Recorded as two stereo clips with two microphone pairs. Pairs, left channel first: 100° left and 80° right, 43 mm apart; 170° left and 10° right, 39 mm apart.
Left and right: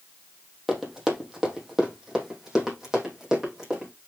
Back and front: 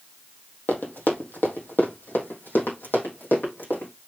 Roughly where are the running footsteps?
Behind.